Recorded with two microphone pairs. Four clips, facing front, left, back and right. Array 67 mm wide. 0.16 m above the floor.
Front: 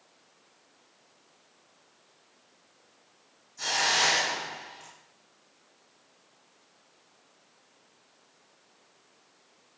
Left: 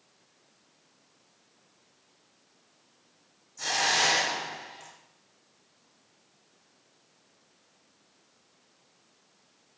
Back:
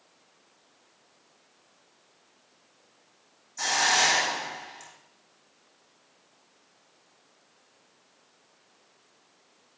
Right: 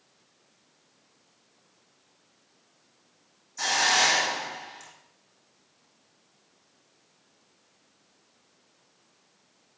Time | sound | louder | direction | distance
3.6 | a hiss | right 3 dB, back 3 dB | 125° right | 7.5 m